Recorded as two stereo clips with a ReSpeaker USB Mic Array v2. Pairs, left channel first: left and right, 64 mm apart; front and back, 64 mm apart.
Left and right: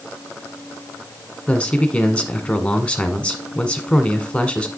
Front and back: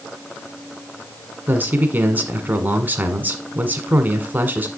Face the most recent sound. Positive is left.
turn(degrees=150)